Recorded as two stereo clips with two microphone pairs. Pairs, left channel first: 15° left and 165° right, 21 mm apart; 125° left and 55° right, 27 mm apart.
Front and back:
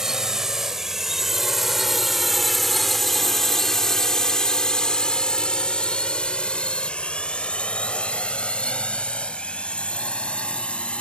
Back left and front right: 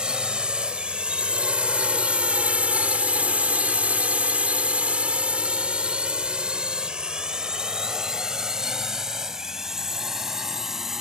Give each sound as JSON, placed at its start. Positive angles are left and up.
{"t": 0.0, "sound": "a drone", "azimuth_deg": -105}